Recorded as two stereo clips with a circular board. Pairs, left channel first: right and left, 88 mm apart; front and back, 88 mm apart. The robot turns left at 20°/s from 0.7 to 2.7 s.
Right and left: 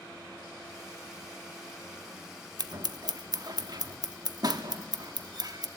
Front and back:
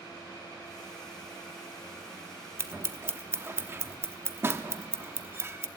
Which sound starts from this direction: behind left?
Scissors, at 2.6 s.